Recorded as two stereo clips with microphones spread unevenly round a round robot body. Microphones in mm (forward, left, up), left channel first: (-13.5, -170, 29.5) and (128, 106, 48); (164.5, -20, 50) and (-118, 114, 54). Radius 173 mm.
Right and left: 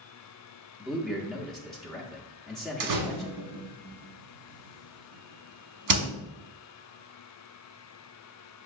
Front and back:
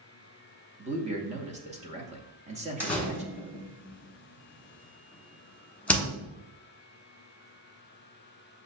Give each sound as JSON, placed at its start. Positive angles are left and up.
{"t": 0.8, "sound": "a man speaking", "azimuth_deg": 165, "distance_m": 0.8}
{"t": 2.8, "sound": "a door slam", "azimuth_deg": 60, "distance_m": 1.1}